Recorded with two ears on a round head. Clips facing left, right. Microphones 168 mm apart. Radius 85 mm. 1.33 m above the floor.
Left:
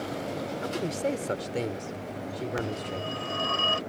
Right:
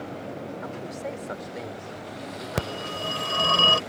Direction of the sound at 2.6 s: 65° right (ahead or behind).